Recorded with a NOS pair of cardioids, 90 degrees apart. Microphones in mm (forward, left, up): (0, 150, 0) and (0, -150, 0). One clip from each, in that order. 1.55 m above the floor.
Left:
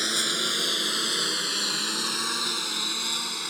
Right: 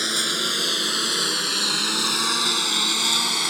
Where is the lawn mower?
15° right; by 3.5 s 60° right.